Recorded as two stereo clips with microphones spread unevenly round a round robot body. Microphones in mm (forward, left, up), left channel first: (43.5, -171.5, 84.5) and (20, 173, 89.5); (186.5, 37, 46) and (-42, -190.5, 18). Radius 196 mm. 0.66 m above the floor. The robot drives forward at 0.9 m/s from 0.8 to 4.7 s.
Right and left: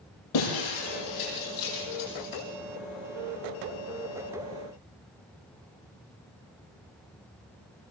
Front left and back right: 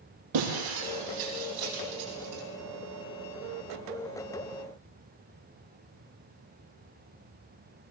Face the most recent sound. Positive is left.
turn(degrees=-135)